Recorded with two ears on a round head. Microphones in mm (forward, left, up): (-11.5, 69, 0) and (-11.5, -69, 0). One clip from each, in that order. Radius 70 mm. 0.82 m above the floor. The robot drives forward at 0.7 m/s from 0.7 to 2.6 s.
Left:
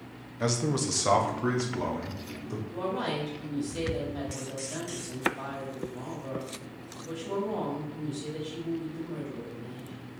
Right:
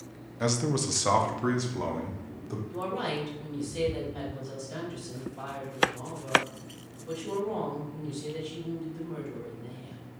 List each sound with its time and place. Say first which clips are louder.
0.4 s a man speaking: even; 5° right (ahead or behind), 0.6 m; by 2.6 s centre (ahead or behind), 1.9 m
2.7 s a woman speaking: even; centre (ahead or behind), 3 m